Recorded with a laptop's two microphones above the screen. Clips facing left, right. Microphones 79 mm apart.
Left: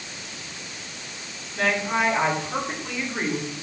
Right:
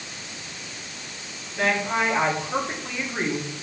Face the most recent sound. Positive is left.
turn(degrees=-5)  # may be behind; listen again after turning